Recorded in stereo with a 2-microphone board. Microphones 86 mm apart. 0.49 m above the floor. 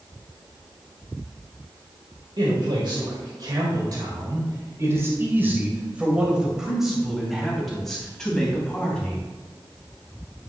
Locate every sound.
2.4 s a man speaking: 65° right (ahead or behind), 2.0 m; by 9.2 s 10° left (ahead or behind), 3.5 m